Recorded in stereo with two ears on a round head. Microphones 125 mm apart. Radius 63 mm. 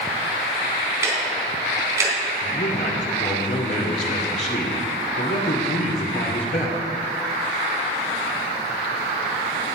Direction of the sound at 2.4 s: 50° left (ahead or behind).